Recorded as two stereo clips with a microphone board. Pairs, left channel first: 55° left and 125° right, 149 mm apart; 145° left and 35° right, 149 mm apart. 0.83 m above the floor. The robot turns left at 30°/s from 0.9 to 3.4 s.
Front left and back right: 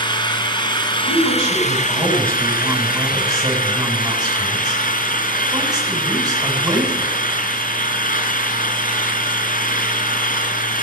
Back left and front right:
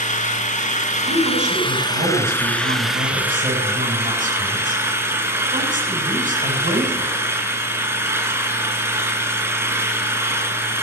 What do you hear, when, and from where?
0.0 s an engine running: 115° left, 2.5 m; by 10.8 s 40° left, 2.5 m
1.0 s a woman speaking: 10° left, 7.5 m; by 7.2 s 60° right, 7.5 m